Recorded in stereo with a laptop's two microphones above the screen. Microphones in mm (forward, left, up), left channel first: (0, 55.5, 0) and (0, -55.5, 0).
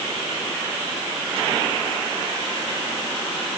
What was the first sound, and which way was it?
Only background noise.